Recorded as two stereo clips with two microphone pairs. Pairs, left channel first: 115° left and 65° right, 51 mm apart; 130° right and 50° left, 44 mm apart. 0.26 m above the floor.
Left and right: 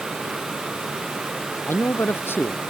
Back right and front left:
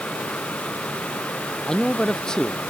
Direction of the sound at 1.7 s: 155° left.